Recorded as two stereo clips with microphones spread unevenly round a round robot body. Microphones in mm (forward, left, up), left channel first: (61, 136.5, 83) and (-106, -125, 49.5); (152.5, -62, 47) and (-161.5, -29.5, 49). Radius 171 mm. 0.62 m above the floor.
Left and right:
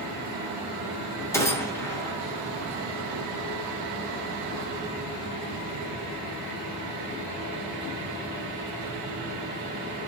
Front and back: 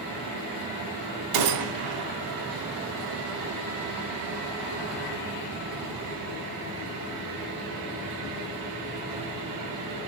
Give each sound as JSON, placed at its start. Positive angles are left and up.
{"t": 1.3, "sound": "a gunshot", "azimuth_deg": 140, "distance_m": 0.8}